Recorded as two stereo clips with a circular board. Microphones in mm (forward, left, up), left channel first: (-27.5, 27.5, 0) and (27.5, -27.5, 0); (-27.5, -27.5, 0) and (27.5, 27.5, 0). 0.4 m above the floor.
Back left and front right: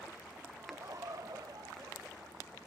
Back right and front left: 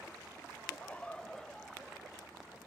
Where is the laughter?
80° right, 1.3 m; by 2.6 s 45° right, 3 m.